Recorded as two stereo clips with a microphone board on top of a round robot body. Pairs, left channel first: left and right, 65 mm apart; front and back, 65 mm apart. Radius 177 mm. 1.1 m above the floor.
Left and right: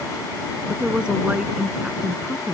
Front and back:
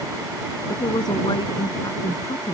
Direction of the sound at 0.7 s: 15° right.